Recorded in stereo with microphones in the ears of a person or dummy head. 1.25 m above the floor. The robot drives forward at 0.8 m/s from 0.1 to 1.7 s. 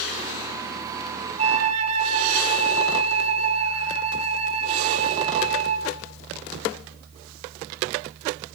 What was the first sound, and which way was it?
A flute, 40° right (ahead or behind).